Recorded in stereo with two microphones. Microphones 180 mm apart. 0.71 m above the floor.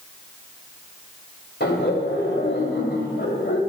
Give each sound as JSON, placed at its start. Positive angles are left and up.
{"t": 1.6, "sound": "laughter", "side_deg": 80, "distance_m": 3.5}